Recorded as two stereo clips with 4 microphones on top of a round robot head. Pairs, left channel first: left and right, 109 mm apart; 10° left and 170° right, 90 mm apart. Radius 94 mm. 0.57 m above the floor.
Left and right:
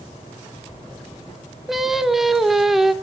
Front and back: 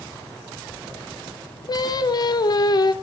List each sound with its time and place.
1.7 s singing: 5° right, 1.6 m